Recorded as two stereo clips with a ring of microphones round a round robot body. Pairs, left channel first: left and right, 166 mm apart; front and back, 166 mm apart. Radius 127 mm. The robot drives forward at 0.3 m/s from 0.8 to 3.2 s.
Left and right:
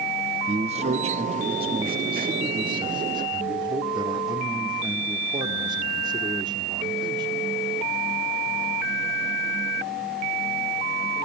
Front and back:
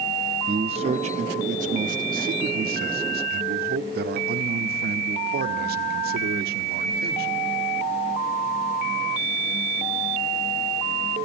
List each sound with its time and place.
0.5 s a man speaking: 135° right, 0.9 m; by 7.4 s 155° right, 1.4 m